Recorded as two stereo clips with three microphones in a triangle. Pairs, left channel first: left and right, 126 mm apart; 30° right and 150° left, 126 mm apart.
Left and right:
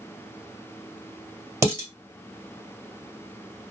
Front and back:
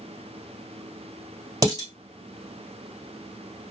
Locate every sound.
1.6 s dishes clattering: 155° right, 1.7 m